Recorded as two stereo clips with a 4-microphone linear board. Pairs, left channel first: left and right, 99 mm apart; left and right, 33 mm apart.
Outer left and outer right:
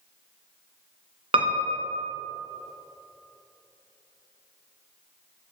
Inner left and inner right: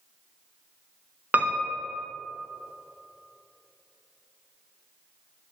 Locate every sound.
1.3 s a piano: 65° right (ahead or behind), 0.8 m